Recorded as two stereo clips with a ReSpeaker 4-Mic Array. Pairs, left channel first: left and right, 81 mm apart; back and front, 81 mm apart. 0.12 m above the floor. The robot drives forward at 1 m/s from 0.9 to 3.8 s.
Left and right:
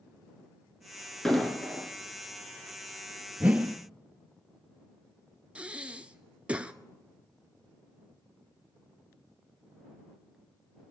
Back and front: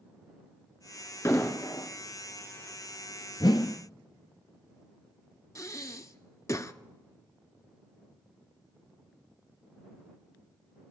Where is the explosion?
170° left, 1.7 m; by 1.9 s 175° left, 2 m.